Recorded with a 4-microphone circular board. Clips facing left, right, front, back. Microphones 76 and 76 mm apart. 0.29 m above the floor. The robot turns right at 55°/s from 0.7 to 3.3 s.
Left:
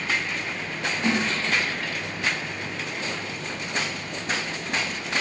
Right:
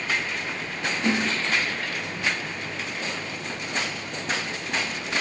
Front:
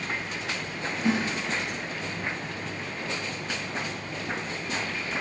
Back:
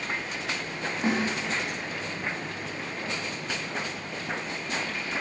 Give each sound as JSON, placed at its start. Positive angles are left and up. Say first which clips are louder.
{"t": 1.0, "sound": "a snare drum", "louder": "even, front 1 dB", "azimuth_deg": 150, "distance_m": 2.5}